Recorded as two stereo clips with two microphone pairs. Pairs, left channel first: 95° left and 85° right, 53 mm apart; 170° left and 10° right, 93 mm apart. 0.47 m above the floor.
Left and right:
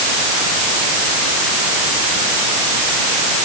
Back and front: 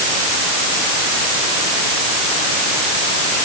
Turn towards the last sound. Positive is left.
No sound to turn to.